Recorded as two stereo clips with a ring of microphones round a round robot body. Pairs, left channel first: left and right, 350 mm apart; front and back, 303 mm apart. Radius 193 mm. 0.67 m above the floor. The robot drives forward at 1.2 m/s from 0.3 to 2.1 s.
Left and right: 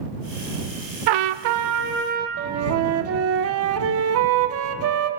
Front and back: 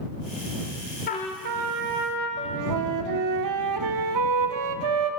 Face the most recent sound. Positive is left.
turn(degrees=-145)